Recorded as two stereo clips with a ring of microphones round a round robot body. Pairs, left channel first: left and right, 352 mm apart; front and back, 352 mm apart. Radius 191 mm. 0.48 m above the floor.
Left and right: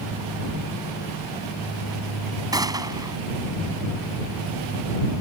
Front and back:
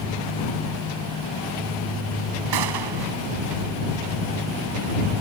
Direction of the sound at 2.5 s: 170° right.